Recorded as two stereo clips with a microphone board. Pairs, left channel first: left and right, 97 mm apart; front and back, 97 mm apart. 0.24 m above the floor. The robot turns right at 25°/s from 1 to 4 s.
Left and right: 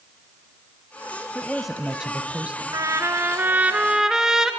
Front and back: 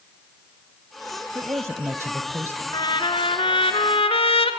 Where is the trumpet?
40° right, 1.2 m; by 4.5 s 5° right, 1.2 m.